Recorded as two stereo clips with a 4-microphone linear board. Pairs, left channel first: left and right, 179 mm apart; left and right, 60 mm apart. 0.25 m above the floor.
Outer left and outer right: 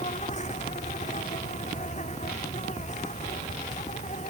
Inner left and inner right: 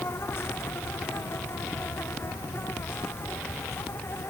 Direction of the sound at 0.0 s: 45° left (ahead or behind).